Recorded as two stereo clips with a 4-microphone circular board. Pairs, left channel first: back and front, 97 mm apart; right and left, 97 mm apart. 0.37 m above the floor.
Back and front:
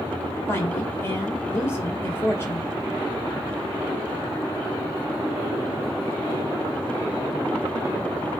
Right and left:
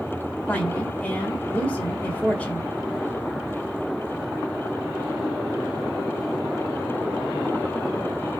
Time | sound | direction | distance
0.5 | a woman speaking | 150° right | 1.6 m